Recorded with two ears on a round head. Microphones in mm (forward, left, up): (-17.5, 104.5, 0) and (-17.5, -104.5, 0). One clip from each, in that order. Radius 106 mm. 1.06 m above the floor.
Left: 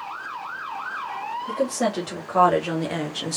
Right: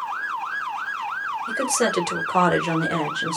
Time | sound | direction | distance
1.5 | a woman speaking | 45° right (ahead or behind) | 1.4 m